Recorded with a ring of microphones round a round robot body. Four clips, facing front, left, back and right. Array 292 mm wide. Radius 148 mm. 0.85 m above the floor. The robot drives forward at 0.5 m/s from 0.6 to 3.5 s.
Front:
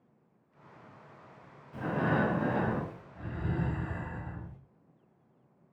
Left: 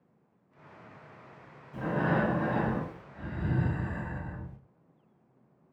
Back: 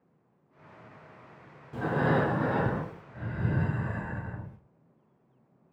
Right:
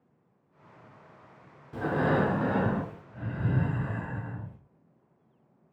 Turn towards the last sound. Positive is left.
turn(degrees=-150)